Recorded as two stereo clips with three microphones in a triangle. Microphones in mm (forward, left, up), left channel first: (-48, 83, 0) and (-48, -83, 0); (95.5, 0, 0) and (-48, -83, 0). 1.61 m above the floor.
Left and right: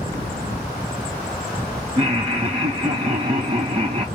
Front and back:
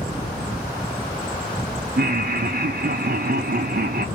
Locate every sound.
2.0 s laughter: 145° right, 0.5 m